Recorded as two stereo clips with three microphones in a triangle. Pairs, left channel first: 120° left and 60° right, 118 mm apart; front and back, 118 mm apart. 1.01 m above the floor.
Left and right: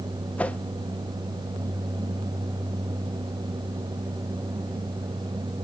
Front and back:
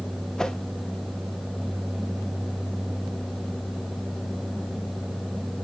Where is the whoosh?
70° left, 0.5 m.